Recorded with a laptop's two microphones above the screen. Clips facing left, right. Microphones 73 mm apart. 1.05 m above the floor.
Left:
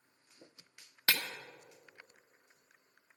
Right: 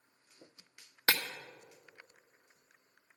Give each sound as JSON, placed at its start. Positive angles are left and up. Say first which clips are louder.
{"t": 1.1, "sound": "breaking glass", "louder": "right 2 dB", "side_deg": -25, "distance_m": 1.0}